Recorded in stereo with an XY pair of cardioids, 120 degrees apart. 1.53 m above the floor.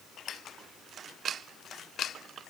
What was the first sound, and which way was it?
Only background noise.